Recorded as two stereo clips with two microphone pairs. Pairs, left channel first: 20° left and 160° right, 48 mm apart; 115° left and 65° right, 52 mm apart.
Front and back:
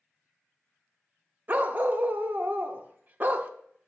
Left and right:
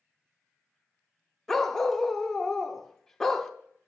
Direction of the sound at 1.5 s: 160° right.